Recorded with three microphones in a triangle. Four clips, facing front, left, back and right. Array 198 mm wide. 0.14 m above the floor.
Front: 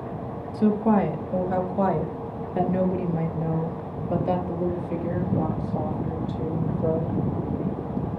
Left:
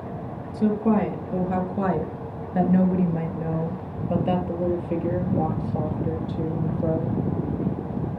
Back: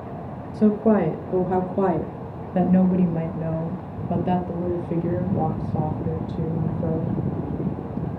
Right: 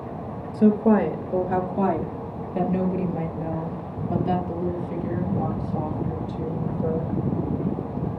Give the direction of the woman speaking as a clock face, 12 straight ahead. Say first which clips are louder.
Right 3 dB, back 2 dB; 5 o'clock.